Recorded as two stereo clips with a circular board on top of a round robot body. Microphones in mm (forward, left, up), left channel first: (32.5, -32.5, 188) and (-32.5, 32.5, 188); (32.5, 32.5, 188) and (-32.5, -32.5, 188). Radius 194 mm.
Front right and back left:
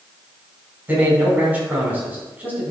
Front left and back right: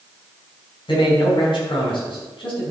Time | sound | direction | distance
0.9 | a man speaking | 65° left | 4.5 m